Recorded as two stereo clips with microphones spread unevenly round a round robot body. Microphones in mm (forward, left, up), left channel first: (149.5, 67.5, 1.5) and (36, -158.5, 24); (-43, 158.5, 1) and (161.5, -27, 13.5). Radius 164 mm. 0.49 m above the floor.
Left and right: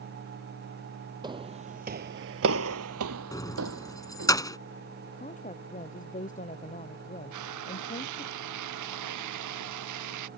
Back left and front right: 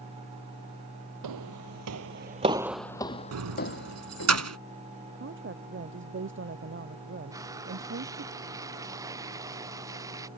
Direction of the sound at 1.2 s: 45° right.